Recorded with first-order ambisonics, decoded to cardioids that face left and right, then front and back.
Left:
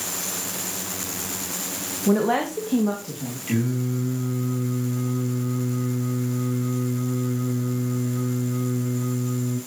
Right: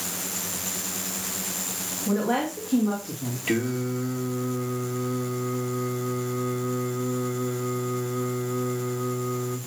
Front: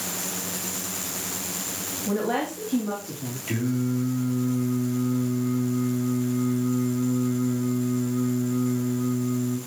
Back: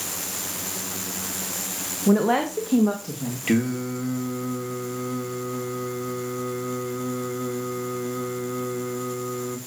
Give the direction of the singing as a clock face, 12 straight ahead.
5 o'clock.